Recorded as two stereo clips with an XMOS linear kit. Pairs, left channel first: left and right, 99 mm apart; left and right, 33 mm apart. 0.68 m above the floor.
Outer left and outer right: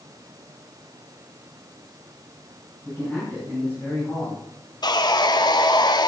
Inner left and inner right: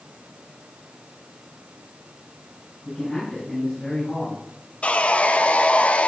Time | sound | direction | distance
2.9 | a man speaking | 20° left (ahead or behind) | 5.5 m
4.8 | sawing | 45° left (ahead or behind) | 0.6 m